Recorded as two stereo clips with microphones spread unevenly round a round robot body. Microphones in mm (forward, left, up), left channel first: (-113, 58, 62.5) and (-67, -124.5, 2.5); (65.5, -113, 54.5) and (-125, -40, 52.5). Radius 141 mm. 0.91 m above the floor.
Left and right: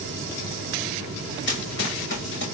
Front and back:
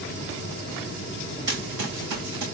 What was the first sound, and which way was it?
Running footsteps, 115° left.